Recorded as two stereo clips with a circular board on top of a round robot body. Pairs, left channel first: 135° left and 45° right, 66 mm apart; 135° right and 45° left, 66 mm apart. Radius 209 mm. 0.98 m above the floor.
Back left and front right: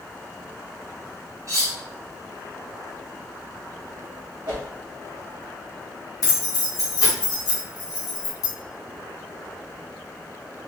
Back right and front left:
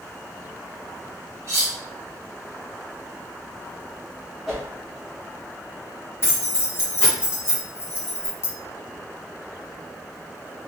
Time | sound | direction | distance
1.5 | cutlery clinking | 5° right | 1.1 m
4.5 | a whoosh | 40° right | 0.7 m
6.2 | keys jangling | 170° left | 1.2 m